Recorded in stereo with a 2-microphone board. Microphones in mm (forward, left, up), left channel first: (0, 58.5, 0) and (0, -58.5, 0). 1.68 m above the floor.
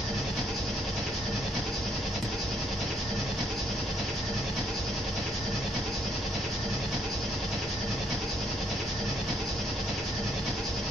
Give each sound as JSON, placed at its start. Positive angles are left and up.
{"t": 0.0, "sound": "an engine running", "side_deg": 0, "distance_m": 1.5}